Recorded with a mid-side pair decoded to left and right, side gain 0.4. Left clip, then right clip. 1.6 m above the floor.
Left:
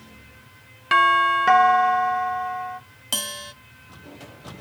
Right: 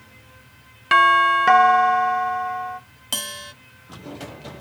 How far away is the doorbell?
About 0.8 m.